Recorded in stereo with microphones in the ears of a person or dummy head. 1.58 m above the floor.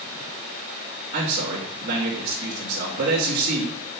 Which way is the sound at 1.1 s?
50° right (ahead or behind).